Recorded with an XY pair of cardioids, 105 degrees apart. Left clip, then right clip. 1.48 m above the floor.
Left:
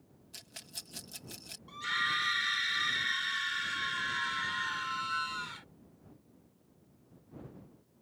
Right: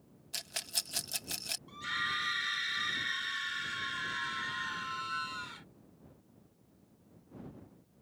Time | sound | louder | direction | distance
0.3 | a rattle | right 9 dB | 60° right | ?
1.7 | a scream | left 4 dB | 20° left | ?